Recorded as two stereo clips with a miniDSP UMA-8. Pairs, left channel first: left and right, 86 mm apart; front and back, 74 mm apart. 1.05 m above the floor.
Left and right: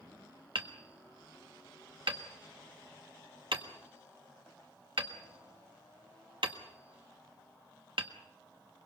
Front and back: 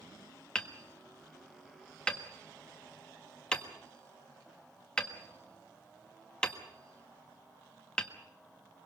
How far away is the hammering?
About 1.5 m.